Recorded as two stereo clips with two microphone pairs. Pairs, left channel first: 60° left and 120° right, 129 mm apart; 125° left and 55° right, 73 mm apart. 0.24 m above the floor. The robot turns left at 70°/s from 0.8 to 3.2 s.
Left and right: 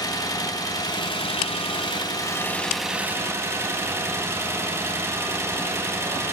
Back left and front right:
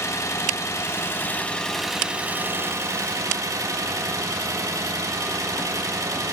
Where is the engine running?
110° left, 1.1 m; by 6.3 s 60° right, 1.1 m.